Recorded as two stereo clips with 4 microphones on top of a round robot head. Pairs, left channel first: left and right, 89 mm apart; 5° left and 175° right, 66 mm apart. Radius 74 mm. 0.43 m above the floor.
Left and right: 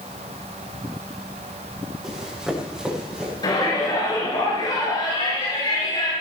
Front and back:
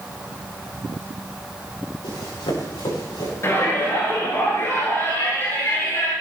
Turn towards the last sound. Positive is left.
turn(degrees=50)